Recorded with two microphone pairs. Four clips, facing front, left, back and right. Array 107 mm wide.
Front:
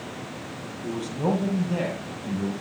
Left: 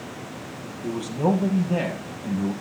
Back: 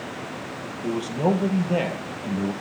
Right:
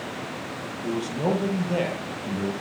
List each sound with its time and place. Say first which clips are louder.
0.8 s a man speaking: left 2 dB, back 4 dB; 165° right, 5.5 m; by 2.5 s 150° right, 6 m